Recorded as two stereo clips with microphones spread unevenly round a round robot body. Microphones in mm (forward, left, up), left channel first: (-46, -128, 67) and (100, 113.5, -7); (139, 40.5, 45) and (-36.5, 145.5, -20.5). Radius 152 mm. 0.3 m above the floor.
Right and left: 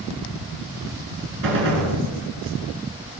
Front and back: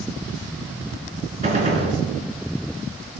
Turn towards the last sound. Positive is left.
turn(degrees=100)